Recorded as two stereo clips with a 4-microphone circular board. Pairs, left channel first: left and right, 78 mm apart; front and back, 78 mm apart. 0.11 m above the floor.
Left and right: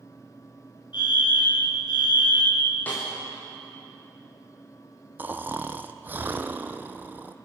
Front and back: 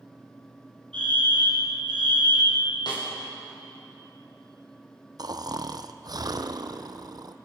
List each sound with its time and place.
0.9 s a fire alarm: 75° left, 7.5 m
2.9 s a snare drum: 25° left, 9.5 m
5.2 s snoring: 155° right, 1.2 m